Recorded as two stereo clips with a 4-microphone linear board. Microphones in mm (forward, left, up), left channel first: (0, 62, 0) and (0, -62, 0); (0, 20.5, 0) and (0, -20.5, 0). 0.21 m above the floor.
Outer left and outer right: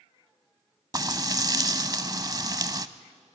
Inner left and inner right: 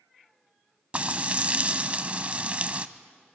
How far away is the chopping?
I don't hear chopping.